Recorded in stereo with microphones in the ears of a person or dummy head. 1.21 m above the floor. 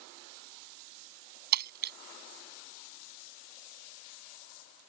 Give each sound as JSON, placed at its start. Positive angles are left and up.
{"t": 1.5, "sound": "breaking glass", "side_deg": -50}